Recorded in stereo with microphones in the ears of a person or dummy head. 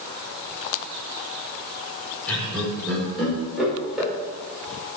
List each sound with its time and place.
2.3 s laughter: 5° left (ahead or behind), 5 m; by 4.1 s 10° right (ahead or behind), 5.5 m